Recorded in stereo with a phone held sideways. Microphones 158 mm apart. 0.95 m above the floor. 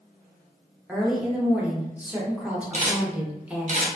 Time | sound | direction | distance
0.9 | a woman speaking | 10° right (ahead or behind) | 0.7 m
2.7 | a camera shutter | 50° right (ahead or behind) | 0.7 m